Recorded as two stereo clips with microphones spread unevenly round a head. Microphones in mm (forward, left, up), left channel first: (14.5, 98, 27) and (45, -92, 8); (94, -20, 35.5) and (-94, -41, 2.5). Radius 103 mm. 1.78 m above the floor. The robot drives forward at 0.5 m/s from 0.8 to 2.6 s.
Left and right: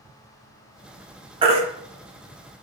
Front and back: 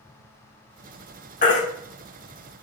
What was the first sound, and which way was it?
A baby crying, 20° right.